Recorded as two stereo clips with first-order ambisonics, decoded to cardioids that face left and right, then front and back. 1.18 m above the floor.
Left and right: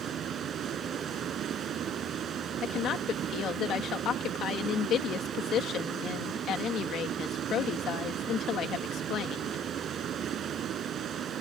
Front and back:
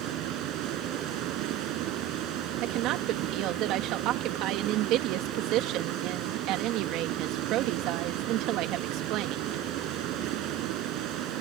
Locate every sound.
0.0 s running water: 145° right
2.6 s a woman speaking: 145° left